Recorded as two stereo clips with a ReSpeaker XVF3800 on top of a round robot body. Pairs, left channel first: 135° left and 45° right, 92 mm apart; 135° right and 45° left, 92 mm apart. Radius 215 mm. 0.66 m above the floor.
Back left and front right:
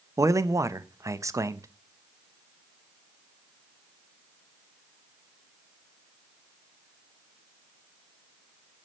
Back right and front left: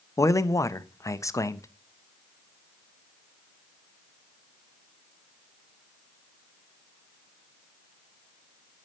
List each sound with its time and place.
0.2 s a man speaking: 90° right, 1.1 m